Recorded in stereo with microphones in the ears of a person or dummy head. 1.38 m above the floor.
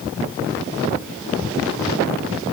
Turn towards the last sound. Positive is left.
No sound to turn to.